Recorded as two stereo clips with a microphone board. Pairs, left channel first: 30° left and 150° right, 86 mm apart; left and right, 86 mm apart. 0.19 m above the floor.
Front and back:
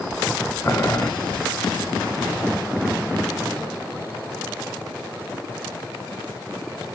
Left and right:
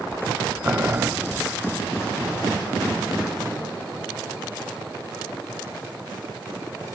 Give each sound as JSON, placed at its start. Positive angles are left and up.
{"t": 0.6, "sound": "boiling", "azimuth_deg": -15, "distance_m": 1.1}